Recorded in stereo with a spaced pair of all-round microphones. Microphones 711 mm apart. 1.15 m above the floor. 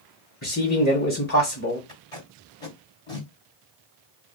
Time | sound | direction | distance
0.4 | a man speaking | 25° left (ahead or behind) | 1.1 m
1.9 | tape being pulled | 55° left (ahead or behind) | 1.5 m